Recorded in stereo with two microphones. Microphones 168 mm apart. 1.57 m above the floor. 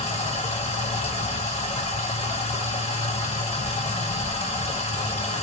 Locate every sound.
0.0 s running water: 40° left (ahead or behind), 1.1 m